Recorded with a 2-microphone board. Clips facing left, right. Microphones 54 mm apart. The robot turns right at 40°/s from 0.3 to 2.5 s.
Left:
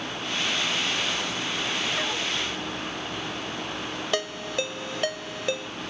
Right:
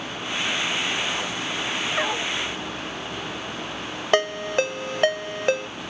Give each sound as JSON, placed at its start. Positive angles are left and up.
{"t": 2.0, "sound": "a dog barking", "side_deg": -35}
{"t": 4.1, "sound": "a ringtone", "side_deg": -45}